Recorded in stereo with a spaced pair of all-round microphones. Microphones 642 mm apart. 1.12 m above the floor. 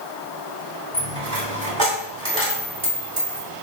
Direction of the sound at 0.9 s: 50° right (ahead or behind).